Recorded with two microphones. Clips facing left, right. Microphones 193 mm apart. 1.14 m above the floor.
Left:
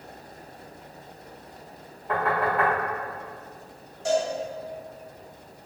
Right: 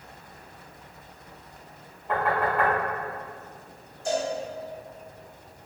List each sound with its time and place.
2.1 s knocking: centre (ahead or behind), 1.4 m
4.0 s a cowbell: 75° left (ahead or behind), 0.8 m